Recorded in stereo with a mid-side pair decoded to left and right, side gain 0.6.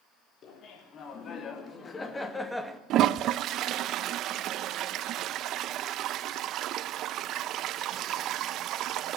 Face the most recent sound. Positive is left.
turn(degrees=-60)